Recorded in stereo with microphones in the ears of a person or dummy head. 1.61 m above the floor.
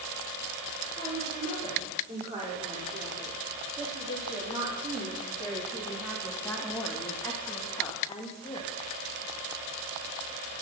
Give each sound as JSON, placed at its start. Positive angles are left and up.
{"t": 1.0, "sound": "a woman speaking", "side_deg": -35, "distance_m": 6.5}